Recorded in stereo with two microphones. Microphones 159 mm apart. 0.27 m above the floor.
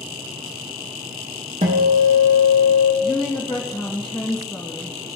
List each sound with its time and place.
1.6 s a guitar: 45° right (ahead or behind), 3.5 m
3.0 s a woman speaking: 5° left (ahead or behind), 2.5 m